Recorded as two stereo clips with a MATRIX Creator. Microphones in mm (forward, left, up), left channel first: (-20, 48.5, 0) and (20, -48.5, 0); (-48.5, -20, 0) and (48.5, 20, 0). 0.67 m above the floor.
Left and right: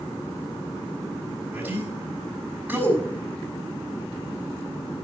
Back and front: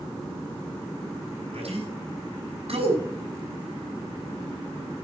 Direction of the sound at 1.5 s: 5° left.